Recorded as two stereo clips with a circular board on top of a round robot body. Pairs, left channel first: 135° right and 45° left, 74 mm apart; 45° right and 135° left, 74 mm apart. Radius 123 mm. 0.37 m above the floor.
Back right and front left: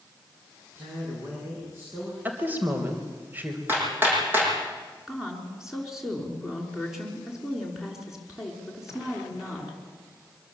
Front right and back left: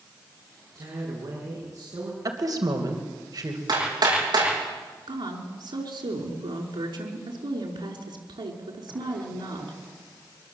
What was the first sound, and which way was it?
A woman speaking, 105° left.